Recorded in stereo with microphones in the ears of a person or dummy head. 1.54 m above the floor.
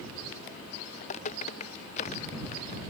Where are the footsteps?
35° left (ahead or behind).